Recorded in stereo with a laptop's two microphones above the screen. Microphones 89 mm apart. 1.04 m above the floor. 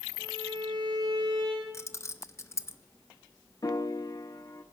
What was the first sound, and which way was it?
A violin, 55° right (ahead or behind).